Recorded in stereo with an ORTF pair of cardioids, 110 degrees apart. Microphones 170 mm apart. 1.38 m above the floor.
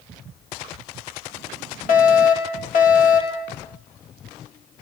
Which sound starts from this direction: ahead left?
A fire alarm, at 1.9 s.